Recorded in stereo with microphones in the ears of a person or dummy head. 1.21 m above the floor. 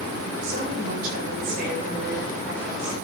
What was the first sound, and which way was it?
A woman speaking, 55° right (ahead or behind).